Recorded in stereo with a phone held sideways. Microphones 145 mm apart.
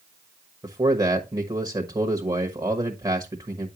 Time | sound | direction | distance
0.6 | a man speaking | 25° right (ahead or behind) | 1.1 m